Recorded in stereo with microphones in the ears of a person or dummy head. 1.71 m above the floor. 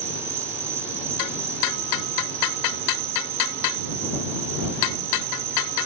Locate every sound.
0.0 s an insect: 10° right (ahead or behind)